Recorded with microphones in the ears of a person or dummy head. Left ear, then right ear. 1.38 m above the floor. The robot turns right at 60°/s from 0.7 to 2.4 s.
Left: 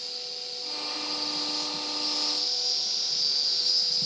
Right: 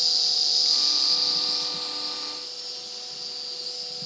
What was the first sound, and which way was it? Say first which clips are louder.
An insect: right 13 dB; 65° right.